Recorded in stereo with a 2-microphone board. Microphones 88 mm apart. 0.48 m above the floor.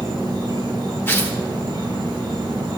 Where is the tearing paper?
25° left (ahead or behind), 1.4 m.